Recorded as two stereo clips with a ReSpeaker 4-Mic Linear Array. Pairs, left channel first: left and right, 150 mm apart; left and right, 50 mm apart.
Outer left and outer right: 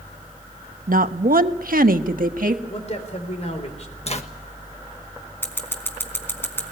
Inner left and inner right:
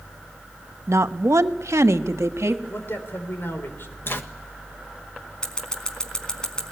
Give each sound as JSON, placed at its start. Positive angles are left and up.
{"t": 0.9, "sound": "a woman speaking", "side_deg": -75, "distance_m": 0.9}
{"t": 2.7, "sound": "a man speaking", "side_deg": 50, "distance_m": 3.5}
{"t": 4.1, "sound": "a zipper", "side_deg": 50, "distance_m": 1.5}
{"t": 5.4, "sound": "scissors", "side_deg": 15, "distance_m": 3.5}